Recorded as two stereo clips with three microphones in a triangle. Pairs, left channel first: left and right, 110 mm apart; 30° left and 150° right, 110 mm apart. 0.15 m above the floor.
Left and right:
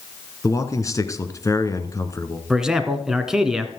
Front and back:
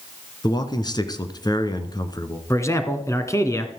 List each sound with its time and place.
0.4 s a man speaking: 50° left, 1.3 m
2.5 s a man speaking: 10° right, 1.6 m